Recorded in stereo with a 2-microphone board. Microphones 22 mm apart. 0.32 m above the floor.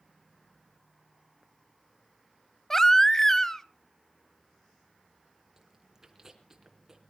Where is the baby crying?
15° left (ahead or behind), 0.6 m.